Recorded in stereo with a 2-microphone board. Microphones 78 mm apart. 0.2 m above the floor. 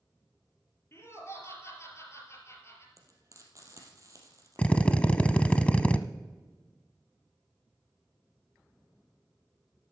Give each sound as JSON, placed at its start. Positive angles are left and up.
{"t": 0.9, "sound": "laughter", "side_deg": 35, "distance_m": 4.0}
{"t": 3.0, "sound": "frying", "side_deg": -45, "distance_m": 3.0}
{"t": 4.6, "sound": "a drill", "side_deg": 15, "distance_m": 0.6}